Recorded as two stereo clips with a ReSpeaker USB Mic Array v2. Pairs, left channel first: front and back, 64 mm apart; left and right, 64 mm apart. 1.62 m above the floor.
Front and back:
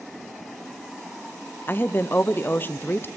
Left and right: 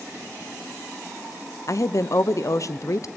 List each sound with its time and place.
1.7 s a woman speaking: 55° left, 0.8 m